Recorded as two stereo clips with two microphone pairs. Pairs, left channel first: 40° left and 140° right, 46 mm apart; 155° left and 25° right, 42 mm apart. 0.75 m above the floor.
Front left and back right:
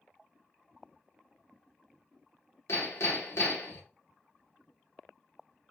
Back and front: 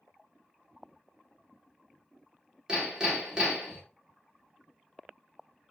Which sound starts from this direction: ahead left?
Hammering, at 2.7 s.